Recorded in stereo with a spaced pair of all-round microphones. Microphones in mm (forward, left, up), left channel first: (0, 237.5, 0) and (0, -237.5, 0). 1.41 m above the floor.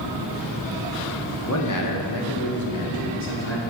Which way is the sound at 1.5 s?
35° left (ahead or behind).